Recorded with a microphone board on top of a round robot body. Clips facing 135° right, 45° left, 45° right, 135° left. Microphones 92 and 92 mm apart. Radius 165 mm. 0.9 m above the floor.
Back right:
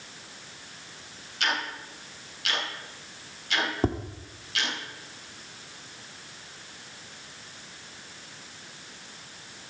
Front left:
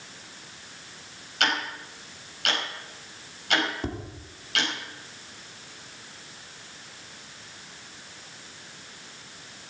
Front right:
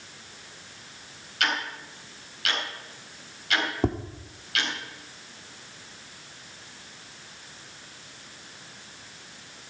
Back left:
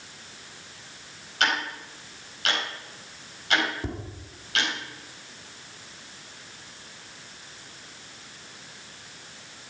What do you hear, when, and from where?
1.4 s ticking: 75° left, 5 m
3.8 s tapping: 80° right, 1.4 m